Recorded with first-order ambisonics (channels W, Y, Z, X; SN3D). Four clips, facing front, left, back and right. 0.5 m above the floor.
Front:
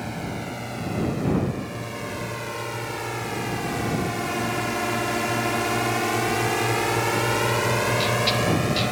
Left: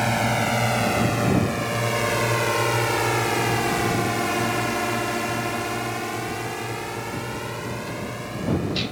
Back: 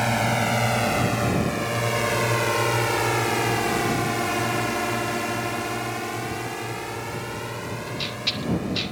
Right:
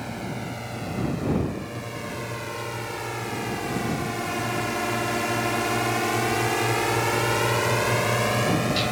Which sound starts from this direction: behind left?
A drone, at 0.0 s.